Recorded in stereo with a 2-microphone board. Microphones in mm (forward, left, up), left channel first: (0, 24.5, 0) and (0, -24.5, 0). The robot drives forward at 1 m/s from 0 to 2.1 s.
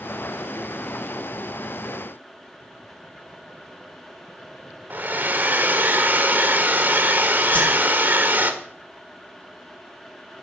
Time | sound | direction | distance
4.9 | a hair dryer | 40° right (ahead or behind) | 1.5 m
7.5 | a whoosh | 25° left (ahead or behind) | 3 m